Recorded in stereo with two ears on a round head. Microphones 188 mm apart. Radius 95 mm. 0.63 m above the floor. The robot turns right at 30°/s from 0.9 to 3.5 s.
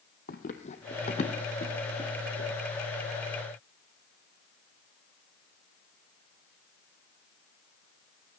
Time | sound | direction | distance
0.3 | running footsteps | 45° left (ahead or behind) | 1.2 m